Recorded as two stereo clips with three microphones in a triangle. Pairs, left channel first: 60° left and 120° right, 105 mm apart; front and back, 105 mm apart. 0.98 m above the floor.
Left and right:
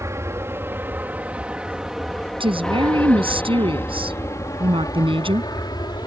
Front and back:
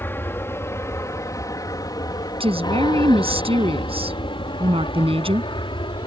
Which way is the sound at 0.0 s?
65° right.